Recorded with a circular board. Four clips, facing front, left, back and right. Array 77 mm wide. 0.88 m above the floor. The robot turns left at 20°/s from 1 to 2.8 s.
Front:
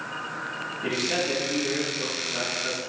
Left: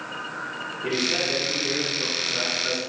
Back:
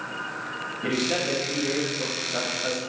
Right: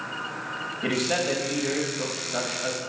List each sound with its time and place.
0.8 s a man speaking: 95° right, 4 m; by 2.8 s 130° right, 4 m